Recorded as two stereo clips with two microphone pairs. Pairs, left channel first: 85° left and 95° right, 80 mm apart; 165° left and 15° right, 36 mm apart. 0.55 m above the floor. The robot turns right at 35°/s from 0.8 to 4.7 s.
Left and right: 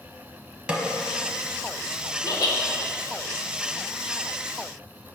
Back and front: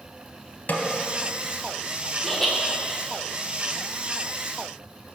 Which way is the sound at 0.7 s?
170° right.